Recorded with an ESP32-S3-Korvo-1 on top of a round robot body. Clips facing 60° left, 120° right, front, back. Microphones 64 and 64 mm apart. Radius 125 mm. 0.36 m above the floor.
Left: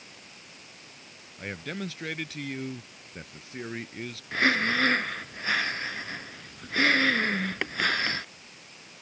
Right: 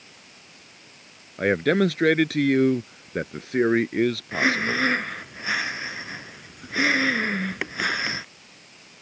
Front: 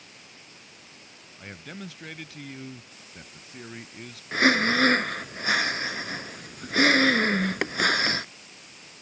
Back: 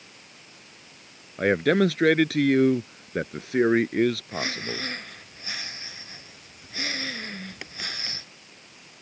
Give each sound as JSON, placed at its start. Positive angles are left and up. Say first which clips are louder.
{"t": 1.4, "sound": "a man speaking", "louder": "right 16 dB, back 21 dB", "azimuth_deg": -155}
{"t": 4.3, "sound": "breathing", "louder": "right 2 dB, front 10 dB", "azimuth_deg": -40}